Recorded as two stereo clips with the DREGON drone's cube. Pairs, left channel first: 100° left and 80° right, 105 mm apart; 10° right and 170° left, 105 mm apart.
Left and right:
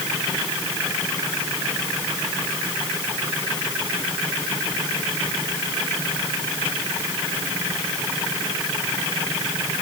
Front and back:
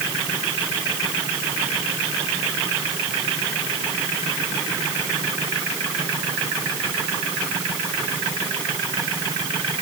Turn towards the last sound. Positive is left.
No sound to turn to.